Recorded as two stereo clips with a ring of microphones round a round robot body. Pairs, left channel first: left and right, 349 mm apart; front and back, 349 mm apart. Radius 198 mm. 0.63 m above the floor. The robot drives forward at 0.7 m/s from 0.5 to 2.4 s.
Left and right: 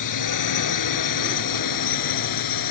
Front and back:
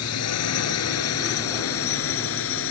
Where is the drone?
55° left; by 2.7 s 60° left.